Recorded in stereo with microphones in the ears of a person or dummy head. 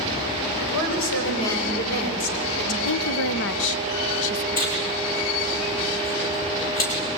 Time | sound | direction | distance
0.6 | a woman speaking | 80° left | 7 m
2.9 | a woman speaking | 65° left (ahead or behind) | 0.9 m
4.5 | tearing paper | 50° left (ahead or behind) | 5.5 m